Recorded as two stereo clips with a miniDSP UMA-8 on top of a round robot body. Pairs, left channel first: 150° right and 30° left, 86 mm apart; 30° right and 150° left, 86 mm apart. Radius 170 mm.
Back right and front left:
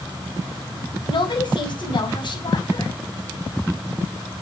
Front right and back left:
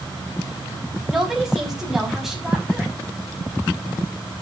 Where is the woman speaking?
125° right, 6 m.